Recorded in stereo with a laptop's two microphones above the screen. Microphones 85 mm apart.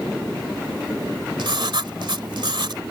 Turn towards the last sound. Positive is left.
turn(degrees=-65)  # may be behind; listen again after turning